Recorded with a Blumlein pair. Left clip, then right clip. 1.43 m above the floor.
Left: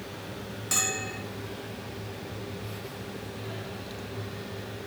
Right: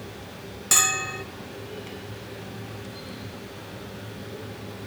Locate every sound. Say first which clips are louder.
0.7 s a bell: right 7 dB; 65° right, 0.5 m